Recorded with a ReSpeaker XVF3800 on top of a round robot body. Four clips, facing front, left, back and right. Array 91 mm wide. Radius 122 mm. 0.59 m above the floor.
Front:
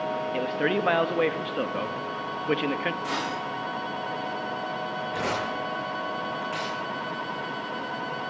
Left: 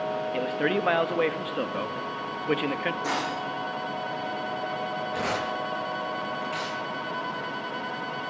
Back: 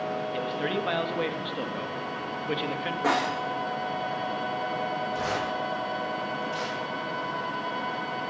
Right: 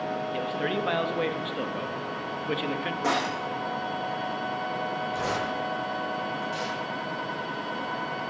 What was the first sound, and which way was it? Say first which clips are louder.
A man speaking: left 4 dB, front 6 dB; 40° left.